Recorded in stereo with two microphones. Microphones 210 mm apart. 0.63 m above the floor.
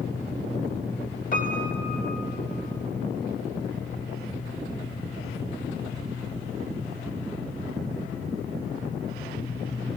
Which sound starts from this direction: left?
A piano, at 1.3 s.